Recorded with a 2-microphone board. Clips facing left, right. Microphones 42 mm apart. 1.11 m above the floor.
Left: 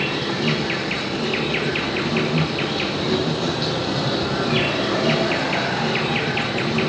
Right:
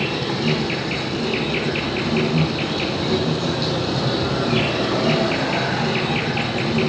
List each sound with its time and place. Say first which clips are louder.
0.0 s an insect: even; 10° left (ahead or behind), 7 m